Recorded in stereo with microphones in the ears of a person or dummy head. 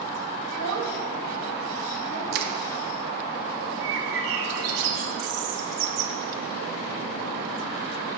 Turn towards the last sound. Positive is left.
turn(degrees=-70)  # may be behind; listen again after turning